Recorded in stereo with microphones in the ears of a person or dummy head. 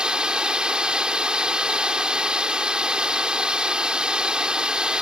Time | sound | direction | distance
0.0 | running water | 5° right (ahead or behind) | ?